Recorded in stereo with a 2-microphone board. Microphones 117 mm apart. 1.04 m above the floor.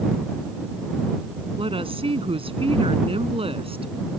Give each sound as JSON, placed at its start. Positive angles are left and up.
{"t": 1.6, "sound": "a woman speaking", "side_deg": -50}